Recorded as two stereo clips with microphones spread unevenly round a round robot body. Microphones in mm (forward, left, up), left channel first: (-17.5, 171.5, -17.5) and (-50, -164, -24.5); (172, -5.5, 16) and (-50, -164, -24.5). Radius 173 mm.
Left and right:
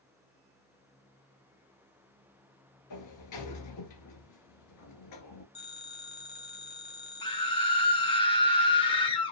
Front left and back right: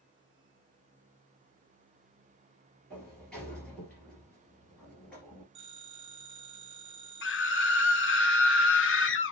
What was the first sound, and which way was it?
A sliding door, 120° left.